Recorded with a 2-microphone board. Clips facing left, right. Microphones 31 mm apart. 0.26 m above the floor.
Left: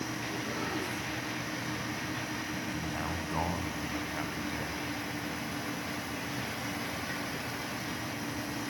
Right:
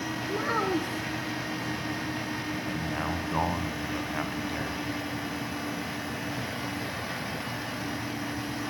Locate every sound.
0.3 s a child speaking: 65° right (ahead or behind), 2.5 m
2.7 s a man speaking: 25° right (ahead or behind), 2.5 m